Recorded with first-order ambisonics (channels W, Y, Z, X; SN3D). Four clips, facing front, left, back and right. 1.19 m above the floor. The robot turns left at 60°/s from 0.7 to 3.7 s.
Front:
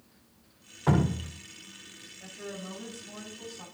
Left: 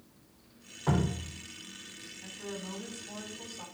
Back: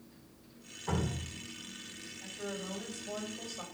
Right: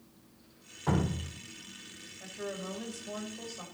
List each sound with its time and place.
0.9 s dripping: 5° left, 1.2 m; by 1.3 s 25° right, 1.2 m
2.2 s a woman speaking: 65° right, 7 m; by 3.6 s 150° right, 7 m